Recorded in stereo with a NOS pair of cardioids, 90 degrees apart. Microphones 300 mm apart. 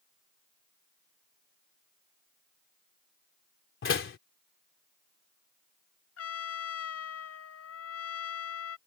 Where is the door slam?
40° left.